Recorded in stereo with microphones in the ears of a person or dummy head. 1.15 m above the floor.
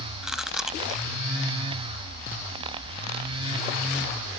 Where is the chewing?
5° left (ahead or behind).